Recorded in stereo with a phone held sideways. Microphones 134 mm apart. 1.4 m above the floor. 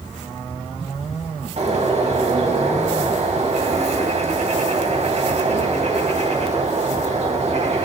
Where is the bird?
55° right (ahead or behind), 2.5 m.